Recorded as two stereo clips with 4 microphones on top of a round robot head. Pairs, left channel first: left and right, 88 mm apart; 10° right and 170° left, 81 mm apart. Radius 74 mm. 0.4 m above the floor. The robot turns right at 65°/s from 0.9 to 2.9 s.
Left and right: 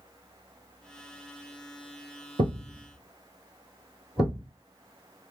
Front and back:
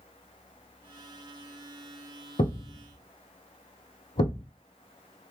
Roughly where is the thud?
Ahead right.